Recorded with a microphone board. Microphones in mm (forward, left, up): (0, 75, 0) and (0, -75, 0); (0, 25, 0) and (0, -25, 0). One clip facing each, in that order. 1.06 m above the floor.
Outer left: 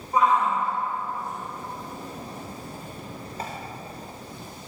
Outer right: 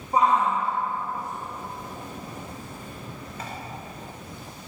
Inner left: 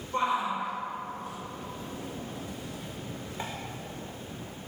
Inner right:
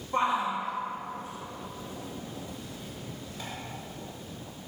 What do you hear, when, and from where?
0.1 s a shout: 30° right (ahead or behind), 2.5 m; by 3.5 s 30° left (ahead or behind), 1.6 m